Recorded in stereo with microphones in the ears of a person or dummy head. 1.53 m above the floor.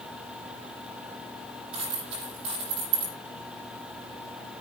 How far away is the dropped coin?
About 7.5 m.